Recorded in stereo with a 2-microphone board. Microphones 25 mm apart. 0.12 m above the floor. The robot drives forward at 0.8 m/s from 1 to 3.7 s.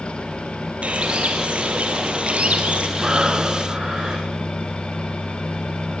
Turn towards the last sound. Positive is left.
turn(degrees=-35)  # may be behind; listen again after turning